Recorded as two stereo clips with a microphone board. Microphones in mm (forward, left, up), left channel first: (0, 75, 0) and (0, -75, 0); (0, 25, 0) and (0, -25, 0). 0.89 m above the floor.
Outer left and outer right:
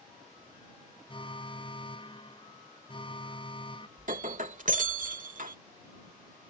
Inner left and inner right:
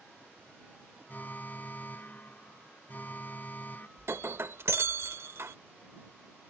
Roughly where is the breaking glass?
Right.